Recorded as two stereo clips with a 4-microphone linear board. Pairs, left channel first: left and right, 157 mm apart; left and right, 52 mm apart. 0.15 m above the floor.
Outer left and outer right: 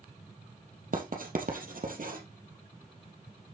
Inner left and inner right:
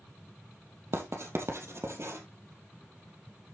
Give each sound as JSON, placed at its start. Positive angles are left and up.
{"t": 0.9, "sound": "writing", "side_deg": -60, "distance_m": 3.0}